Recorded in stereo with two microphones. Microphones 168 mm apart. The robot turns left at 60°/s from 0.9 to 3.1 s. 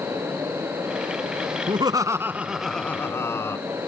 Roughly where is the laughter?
Behind right.